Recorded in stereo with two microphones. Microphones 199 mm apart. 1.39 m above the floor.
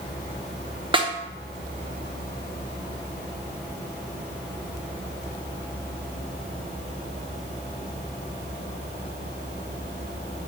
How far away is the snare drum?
About 0.7 m.